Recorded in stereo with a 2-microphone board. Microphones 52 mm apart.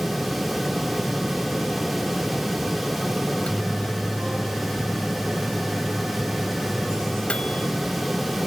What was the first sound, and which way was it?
A microwave, 20° left (ahead or behind).